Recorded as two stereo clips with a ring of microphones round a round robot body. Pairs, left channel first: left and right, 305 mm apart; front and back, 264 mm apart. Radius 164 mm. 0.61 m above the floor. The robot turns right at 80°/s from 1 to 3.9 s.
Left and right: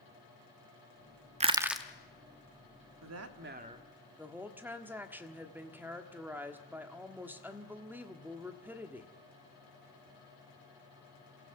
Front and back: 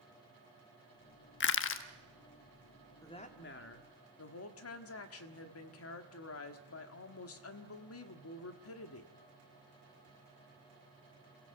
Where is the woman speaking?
80° right, 1.5 m; by 9.1 s 5° right, 1.5 m.